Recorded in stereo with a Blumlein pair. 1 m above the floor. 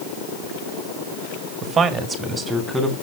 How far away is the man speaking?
About 1.2 m.